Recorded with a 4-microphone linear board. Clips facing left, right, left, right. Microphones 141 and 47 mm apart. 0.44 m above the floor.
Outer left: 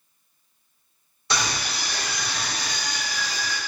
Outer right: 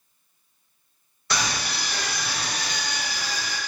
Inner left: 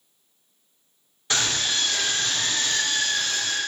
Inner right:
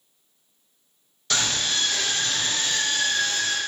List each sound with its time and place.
1.3 s a scream: 20° left (ahead or behind), 1.1 m; by 3.6 s 35° right (ahead or behind), 1.3 m